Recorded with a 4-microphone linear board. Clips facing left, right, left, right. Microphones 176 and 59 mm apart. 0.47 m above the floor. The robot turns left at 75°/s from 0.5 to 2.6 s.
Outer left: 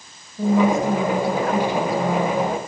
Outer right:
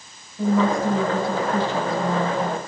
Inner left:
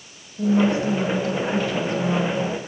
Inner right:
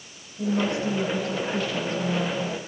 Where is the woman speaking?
150° left, 4.5 m; by 2.6 s 5° right, 4.5 m.